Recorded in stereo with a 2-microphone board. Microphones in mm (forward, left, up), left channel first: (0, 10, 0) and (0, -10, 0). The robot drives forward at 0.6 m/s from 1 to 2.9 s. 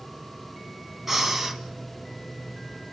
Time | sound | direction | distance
1.1 | breathing | 15° right (ahead or behind) | 2 m